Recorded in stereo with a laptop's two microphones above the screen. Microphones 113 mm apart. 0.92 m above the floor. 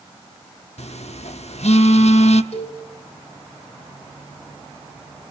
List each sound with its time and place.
0.8 s a phone buzzing: 70° left (ahead or behind), 0.9 m
2.5 s a cowbell: 70° left (ahead or behind), 4 m